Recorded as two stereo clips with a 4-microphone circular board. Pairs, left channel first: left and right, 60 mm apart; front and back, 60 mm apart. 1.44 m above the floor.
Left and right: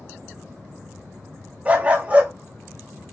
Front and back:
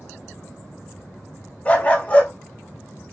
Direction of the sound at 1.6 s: 45° right.